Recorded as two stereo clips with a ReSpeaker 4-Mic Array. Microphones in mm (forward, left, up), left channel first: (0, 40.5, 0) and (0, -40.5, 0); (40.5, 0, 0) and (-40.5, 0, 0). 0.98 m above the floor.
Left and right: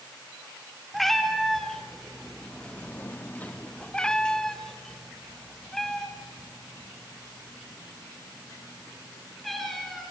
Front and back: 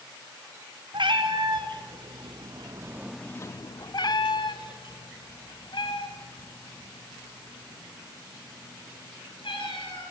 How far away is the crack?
No crack in this recording.